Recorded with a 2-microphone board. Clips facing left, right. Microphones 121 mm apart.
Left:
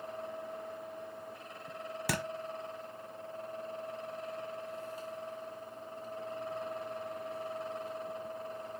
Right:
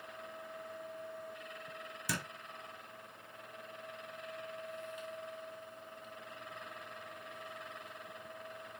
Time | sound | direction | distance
2.1 | a thud | 65° left (ahead or behind) | 0.8 m